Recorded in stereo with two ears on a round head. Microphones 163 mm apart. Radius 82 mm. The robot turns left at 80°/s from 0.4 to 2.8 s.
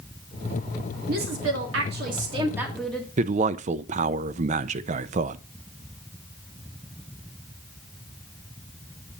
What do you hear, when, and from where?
1.1 s a woman speaking: 50° right, 2 m; by 3.1 s 175° left, 2 m
3.2 s a man speaking: 40° right (ahead or behind), 0.5 m